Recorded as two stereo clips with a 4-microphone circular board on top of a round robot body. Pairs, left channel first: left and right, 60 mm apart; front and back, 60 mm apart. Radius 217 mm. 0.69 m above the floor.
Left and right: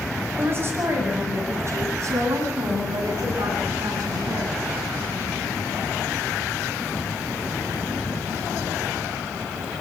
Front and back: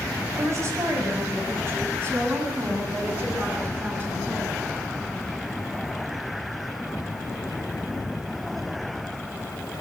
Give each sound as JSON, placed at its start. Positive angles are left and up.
{"t": 0.4, "sound": "a woman speaking", "azimuth_deg": -140, "distance_m": 7.0}